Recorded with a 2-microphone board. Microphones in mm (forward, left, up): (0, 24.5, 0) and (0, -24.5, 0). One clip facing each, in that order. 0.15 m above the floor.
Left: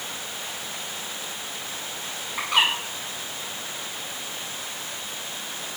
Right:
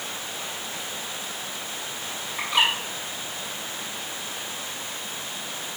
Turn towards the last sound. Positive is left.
turn(degrees=75)  # may be behind; listen again after turning